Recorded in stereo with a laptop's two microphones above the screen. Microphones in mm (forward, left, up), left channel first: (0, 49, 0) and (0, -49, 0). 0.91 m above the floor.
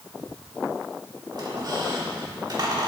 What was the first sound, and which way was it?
A squeak, 45° right (ahead or behind).